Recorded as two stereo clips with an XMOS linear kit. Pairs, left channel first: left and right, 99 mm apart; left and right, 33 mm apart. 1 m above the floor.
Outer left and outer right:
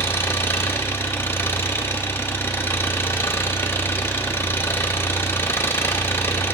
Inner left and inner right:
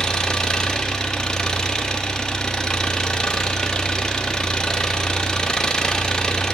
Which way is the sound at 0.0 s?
25° left (ahead or behind).